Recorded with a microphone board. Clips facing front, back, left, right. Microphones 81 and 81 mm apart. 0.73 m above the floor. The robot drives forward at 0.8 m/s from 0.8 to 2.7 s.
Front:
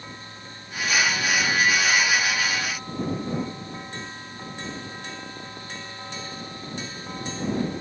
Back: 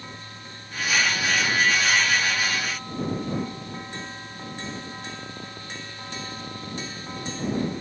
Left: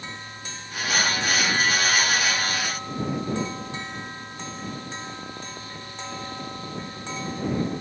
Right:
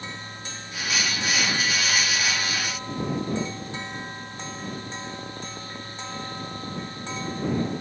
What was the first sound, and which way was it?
Only background noise.